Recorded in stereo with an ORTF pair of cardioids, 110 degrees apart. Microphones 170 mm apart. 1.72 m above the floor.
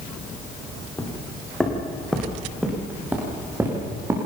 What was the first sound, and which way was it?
Footsteps, 10° left.